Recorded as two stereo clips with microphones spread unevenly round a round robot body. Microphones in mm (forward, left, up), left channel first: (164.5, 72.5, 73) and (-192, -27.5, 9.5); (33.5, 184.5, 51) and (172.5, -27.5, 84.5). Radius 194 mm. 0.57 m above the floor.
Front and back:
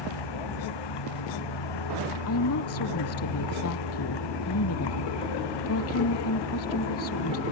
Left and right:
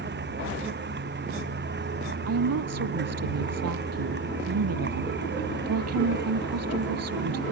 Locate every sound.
0.0 s a vehicle: 10° right
2.3 s a woman speaking: 40° right